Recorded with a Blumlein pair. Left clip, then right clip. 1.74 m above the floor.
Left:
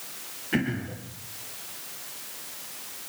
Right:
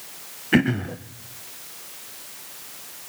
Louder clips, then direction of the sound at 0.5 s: Right 8 dB; 25° right.